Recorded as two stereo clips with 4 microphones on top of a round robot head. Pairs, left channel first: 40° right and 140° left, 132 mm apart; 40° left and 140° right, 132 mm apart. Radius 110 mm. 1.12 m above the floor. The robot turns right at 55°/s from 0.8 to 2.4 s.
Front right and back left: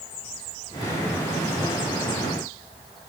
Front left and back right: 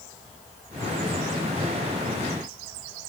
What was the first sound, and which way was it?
Only background noise.